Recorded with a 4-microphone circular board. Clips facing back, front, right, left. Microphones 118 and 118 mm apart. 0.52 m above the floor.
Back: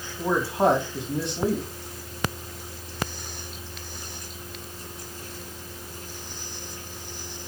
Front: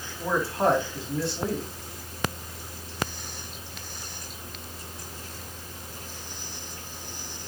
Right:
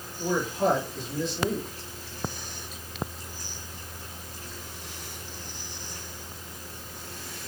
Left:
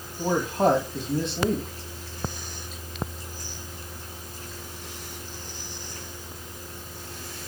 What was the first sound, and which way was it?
A man speaking, 110° left.